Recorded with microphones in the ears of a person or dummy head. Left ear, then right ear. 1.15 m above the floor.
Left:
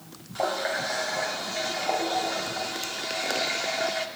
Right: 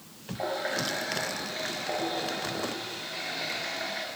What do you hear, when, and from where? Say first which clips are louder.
0.3 s a running tap: left 4 dB; 30° left (ahead or behind), 2 m